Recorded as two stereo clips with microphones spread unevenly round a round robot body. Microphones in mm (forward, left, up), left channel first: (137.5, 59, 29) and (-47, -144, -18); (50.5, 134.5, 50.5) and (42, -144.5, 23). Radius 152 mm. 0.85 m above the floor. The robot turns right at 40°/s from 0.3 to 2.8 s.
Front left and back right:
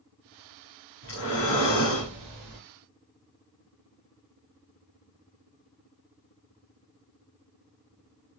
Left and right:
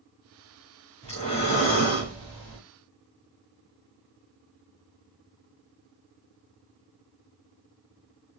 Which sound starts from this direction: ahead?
Breathing, at 1.0 s.